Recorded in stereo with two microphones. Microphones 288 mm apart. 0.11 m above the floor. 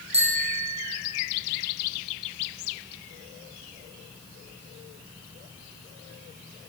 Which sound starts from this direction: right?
A bicycle bell, at 0.1 s.